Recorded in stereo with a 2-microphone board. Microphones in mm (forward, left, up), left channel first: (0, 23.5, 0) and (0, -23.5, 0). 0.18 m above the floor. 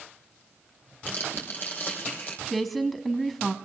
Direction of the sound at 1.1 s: 40° left (ahead or behind).